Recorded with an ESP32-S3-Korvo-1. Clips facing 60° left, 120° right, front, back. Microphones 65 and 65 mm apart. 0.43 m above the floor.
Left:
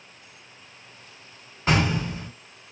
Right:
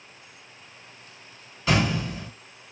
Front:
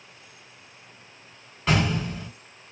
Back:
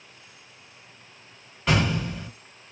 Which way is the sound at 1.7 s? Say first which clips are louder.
Left 1 dB, even; 90° left.